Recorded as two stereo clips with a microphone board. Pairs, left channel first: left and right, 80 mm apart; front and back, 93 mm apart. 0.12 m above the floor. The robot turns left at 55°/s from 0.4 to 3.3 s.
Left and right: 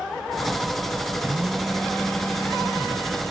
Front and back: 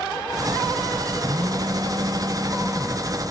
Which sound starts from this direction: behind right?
A phone buzzing, at 1.2 s.